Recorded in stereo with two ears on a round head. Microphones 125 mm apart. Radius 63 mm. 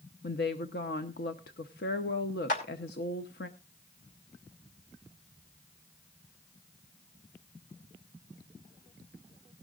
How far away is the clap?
About 3 m.